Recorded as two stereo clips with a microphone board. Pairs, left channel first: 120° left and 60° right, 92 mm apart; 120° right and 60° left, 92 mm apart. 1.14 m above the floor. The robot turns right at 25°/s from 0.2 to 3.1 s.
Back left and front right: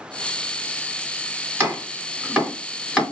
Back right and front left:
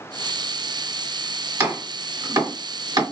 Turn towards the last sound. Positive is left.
turn(degrees=35)